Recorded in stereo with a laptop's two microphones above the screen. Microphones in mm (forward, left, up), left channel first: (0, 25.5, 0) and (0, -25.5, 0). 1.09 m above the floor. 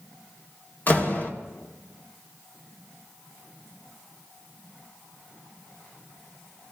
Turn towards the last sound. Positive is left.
turn(degrees=35)  # may be behind; listen again after turning